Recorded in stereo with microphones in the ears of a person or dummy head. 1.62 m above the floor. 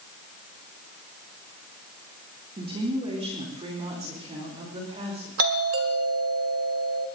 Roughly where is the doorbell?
Right.